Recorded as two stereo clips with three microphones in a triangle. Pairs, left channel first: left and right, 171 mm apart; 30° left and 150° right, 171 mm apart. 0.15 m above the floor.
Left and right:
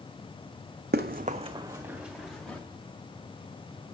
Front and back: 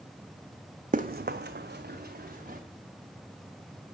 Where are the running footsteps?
105° right, 0.5 m; by 2.6 s 175° left, 1.3 m.